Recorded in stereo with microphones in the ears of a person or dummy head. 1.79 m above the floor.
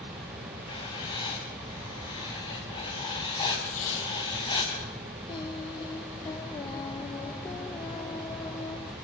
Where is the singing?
20° left (ahead or behind), 0.9 m.